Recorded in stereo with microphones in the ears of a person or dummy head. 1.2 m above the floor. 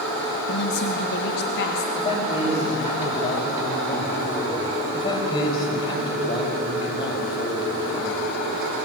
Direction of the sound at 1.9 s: 30° left (ahead or behind).